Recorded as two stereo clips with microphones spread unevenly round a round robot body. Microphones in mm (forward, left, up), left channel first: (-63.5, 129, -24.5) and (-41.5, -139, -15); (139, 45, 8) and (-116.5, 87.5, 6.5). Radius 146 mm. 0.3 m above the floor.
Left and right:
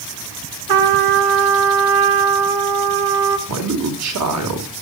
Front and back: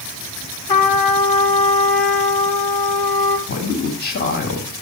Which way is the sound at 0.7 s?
80° right.